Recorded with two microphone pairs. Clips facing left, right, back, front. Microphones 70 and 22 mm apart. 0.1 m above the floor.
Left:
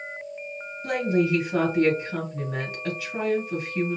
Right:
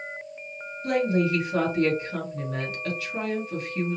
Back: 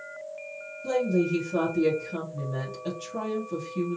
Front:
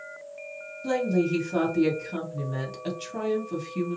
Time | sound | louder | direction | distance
0.8 | a woman speaking | even, even | 35° left | 2.0 m